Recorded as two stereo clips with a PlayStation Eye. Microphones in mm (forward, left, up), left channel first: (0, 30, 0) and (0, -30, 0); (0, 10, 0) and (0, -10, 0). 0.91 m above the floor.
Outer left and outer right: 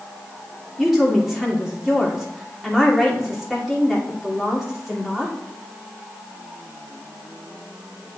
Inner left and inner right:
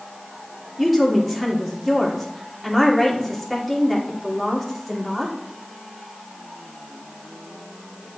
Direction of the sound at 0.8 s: 5° right (ahead or behind).